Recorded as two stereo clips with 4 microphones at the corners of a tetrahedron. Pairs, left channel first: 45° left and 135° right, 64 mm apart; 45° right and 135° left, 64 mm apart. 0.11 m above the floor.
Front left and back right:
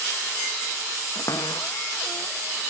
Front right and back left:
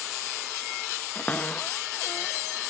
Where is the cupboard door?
20° left.